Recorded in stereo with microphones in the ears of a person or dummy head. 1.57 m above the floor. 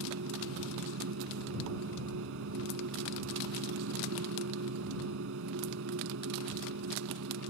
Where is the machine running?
75° right (ahead or behind).